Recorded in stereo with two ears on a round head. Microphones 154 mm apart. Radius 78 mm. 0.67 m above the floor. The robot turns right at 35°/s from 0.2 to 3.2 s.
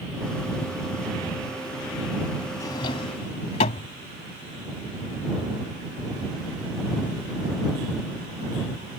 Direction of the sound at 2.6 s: 20° left (ahead or behind).